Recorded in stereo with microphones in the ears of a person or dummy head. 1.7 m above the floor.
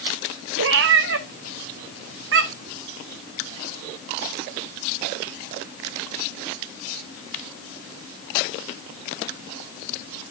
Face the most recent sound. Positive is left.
turn(degrees=-65)  # may be behind; listen again after turning